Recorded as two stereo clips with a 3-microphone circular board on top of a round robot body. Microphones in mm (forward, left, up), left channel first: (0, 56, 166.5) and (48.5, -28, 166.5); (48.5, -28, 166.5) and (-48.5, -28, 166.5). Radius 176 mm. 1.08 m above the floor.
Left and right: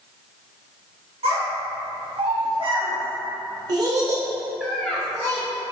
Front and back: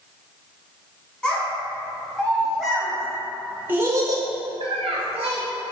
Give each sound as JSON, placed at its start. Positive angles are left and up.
{"t": 1.2, "sound": "a child speaking", "azimuth_deg": -75, "distance_m": 1.8}